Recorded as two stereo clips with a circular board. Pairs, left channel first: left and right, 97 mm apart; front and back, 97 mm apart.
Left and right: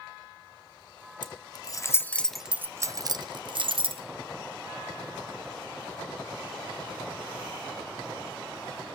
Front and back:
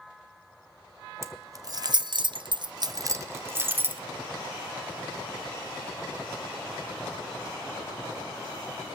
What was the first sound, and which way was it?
Keys jangling, 125° left.